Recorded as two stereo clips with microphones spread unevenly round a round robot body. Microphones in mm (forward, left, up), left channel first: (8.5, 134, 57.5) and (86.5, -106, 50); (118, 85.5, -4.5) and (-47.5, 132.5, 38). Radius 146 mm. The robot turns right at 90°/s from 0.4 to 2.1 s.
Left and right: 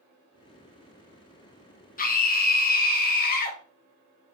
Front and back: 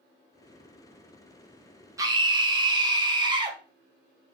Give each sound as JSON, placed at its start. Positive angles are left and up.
{"t": 2.0, "sound": "a scream", "azimuth_deg": 85, "distance_m": 0.6}